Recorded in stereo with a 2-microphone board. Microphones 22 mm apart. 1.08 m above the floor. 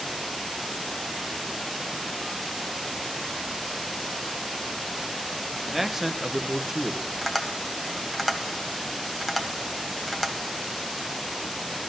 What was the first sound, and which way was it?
A man speaking, 10° right (ahead or behind).